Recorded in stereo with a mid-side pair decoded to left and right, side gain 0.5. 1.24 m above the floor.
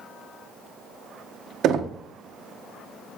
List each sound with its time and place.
1.6 s knocking: 65° right, 0.7 m